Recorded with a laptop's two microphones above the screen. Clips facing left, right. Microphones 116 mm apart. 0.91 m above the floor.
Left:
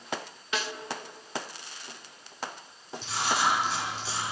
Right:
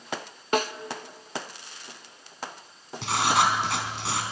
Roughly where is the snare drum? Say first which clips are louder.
Right 8 dB; right.